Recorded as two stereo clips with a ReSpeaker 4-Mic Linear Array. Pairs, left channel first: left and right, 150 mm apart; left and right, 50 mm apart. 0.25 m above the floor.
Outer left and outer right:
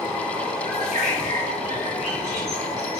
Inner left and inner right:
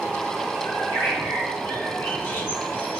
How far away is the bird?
About 3 m.